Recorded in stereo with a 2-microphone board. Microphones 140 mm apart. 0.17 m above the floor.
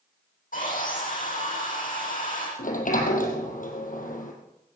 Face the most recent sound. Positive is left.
turn(degrees=75)  # may be behind; listen again after turning